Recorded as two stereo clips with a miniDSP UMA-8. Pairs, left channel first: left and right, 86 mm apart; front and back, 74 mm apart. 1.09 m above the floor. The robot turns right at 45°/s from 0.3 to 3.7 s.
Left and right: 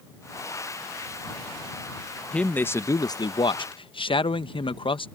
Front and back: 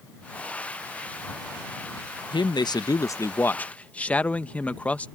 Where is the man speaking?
10° left; by 5.1 s 70° left.